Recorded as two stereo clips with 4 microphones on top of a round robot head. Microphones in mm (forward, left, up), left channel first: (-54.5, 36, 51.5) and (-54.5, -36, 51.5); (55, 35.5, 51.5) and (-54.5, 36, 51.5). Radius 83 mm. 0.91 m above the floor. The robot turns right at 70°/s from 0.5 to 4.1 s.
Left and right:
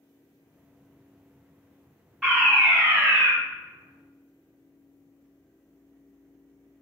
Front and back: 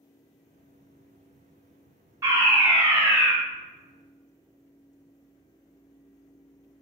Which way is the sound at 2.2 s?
165° right.